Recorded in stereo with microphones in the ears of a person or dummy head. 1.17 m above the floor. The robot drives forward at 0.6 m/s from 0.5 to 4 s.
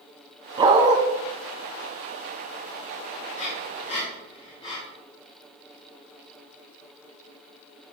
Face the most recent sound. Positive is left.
turn(degrees=35)  # may be behind; listen again after turning